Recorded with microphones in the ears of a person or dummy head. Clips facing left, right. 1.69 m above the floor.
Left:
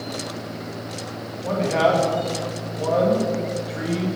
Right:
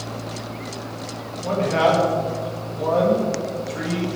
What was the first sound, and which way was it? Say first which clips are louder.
A man speaking: right 1 dB; centre (ahead or behind).